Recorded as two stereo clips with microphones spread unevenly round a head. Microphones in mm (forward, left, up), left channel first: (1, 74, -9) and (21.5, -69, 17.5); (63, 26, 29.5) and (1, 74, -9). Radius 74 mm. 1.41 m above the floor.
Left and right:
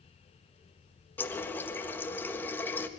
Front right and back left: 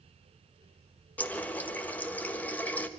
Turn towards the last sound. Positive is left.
turn(degrees=15)